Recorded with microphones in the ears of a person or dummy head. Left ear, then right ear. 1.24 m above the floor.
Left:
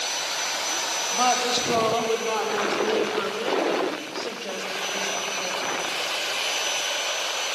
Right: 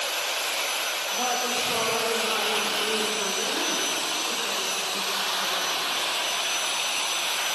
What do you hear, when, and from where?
1.1 s a woman speaking: 50° left (ahead or behind), 3.5 m; by 5.9 s 75° left (ahead or behind), 8.5 m